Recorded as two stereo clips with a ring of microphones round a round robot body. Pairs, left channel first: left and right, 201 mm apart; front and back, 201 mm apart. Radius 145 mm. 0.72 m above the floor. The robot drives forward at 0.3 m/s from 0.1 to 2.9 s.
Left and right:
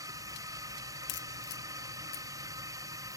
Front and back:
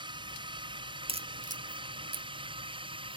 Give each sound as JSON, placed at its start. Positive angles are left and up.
{"t": 0.0, "sound": "a drone", "azimuth_deg": -145}
{"t": 1.1, "sound": "a crack", "azimuth_deg": 115}